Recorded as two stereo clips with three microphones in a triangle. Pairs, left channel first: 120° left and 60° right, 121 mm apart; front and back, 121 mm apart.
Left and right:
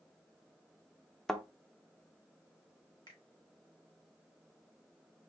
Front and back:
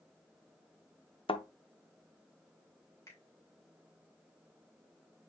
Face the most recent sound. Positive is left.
turn(degrees=65)